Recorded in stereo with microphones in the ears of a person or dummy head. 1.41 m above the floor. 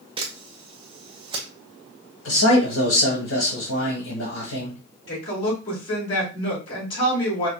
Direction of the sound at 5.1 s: 30° left (ahead or behind).